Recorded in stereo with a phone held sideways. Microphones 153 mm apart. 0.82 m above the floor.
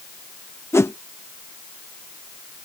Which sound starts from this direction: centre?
A whoosh, at 0.7 s.